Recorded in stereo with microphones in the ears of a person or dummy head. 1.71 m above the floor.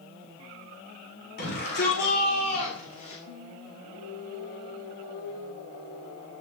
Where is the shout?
55° left (ahead or behind), 7 m; by 3.2 s 45° left (ahead or behind), 5 m.